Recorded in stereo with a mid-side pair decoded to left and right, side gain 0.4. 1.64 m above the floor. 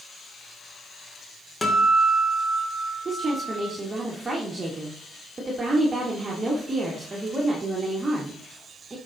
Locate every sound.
1.6 s a guitar: 15° left, 3 m
3.0 s a woman speaking: 30° right, 2.5 m